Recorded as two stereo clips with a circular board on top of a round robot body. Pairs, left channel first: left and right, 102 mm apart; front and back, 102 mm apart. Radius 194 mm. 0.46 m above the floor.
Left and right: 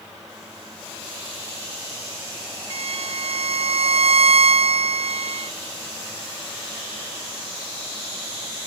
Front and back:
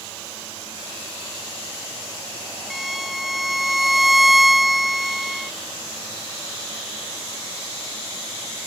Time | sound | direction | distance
2.7 | a violin | 90° right | ?